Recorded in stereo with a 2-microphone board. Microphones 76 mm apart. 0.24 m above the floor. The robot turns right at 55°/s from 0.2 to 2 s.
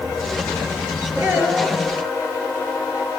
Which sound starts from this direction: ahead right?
A child speaking, at 1.2 s.